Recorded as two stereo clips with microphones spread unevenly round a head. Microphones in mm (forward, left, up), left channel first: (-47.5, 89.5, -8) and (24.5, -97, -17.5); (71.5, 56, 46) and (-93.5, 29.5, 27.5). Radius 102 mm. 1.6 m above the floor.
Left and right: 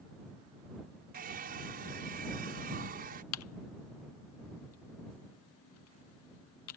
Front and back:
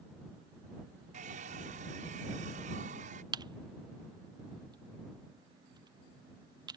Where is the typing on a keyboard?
125° left.